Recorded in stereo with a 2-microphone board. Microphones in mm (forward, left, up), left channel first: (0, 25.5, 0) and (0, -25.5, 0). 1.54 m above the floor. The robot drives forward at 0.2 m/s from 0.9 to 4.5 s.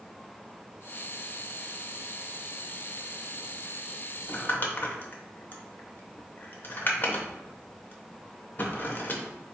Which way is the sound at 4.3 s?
40° left (ahead or behind).